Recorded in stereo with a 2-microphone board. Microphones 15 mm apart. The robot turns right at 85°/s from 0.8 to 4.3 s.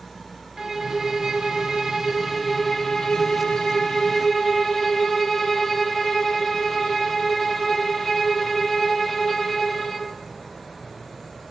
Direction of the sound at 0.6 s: 145° right.